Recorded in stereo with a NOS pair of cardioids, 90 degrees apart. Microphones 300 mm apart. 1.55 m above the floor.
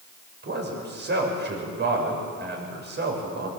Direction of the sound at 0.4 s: 35° right.